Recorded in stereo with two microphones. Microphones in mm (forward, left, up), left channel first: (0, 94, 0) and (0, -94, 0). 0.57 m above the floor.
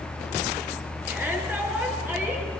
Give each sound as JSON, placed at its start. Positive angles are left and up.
{"t": 1.1, "sound": "a shout", "side_deg": -10, "distance_m": 8.0}